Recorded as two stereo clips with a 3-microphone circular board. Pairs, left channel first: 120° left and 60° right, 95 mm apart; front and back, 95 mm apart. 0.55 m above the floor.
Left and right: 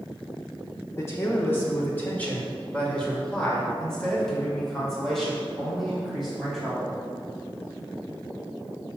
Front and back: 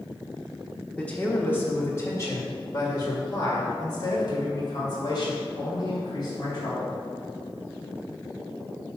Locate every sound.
1.0 s a man speaking: 70° left, 1.1 m; by 6.9 s 30° left, 3.5 m